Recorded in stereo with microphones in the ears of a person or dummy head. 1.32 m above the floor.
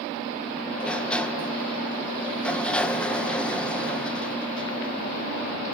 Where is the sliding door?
10° left (ahead or behind), 1.1 m.